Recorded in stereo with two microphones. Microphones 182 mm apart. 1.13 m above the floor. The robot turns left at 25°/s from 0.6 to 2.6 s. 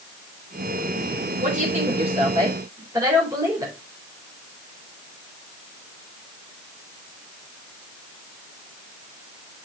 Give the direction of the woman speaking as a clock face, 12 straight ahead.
4 o'clock.